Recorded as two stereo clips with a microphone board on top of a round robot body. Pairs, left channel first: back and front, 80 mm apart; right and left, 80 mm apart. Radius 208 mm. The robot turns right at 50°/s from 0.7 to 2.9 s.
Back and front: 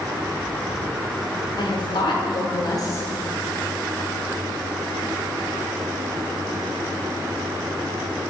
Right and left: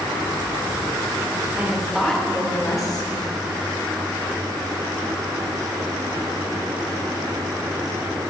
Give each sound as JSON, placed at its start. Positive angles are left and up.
{"t": 1.6, "sound": "a woman speaking", "azimuth_deg": 160, "distance_m": 3.0}